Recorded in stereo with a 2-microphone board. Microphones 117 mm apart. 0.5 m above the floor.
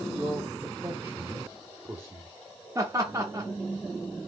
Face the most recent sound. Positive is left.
turn(degrees=-30)  # may be behind; listen again after turning